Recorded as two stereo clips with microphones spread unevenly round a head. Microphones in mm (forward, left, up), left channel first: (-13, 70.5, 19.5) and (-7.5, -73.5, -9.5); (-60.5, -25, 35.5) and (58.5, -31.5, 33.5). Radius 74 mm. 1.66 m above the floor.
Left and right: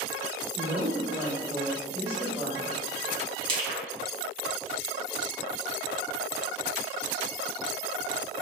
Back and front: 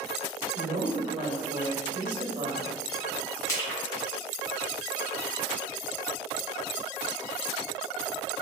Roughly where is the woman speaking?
Ahead right.